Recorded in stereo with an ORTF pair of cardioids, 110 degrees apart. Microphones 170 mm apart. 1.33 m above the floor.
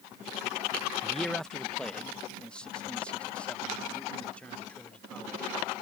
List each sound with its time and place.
1.0 s a man speaking: straight ahead; by 5.5 s 10° left